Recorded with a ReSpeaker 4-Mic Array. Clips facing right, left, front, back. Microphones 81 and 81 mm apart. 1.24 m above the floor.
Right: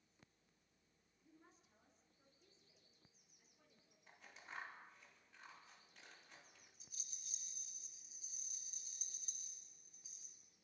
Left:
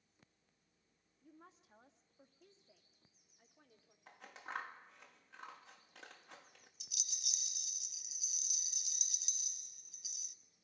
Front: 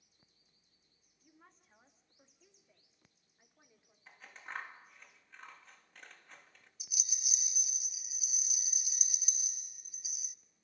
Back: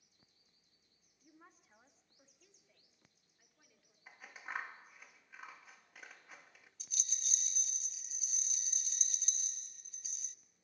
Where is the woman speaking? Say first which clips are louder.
Left 7 dB, back 2 dB; 100° left, 2 m; by 4.0 s 60° left, 3.5 m.